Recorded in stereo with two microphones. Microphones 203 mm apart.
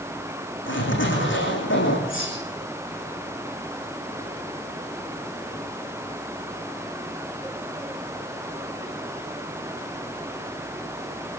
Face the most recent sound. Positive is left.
turn(degrees=80)